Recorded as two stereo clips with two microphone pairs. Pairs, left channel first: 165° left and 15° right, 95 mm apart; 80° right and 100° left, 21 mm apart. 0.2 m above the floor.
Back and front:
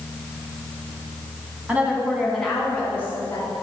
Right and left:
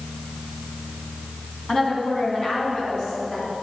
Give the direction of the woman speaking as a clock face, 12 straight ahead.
3 o'clock.